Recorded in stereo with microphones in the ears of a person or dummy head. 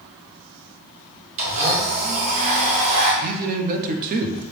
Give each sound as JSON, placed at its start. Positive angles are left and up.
{"t": 1.4, "sound": "a blender", "side_deg": -35, "distance_m": 1.2}
{"t": 3.2, "sound": "a man speaking", "side_deg": -45, "distance_m": 0.6}